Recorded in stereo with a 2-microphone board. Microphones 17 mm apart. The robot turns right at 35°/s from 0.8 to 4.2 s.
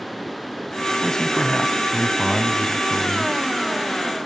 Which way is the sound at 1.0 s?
65° left.